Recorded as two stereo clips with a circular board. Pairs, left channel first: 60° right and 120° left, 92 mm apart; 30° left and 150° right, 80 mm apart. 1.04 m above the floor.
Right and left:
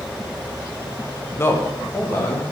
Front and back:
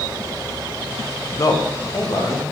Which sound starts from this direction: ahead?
A man speaking, at 1.4 s.